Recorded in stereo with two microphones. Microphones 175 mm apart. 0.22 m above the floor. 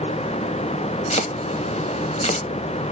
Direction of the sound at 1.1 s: 40° left (ahead or behind).